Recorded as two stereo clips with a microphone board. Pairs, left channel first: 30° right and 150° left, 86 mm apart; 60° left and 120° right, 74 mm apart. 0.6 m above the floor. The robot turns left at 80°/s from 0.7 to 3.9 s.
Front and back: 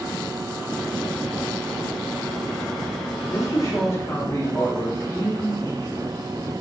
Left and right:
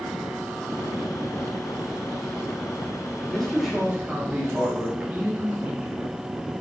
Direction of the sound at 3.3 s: 5° right.